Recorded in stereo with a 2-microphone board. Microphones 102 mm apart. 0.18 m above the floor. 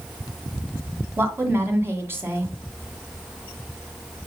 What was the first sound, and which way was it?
A woman speaking, 25° right (ahead or behind).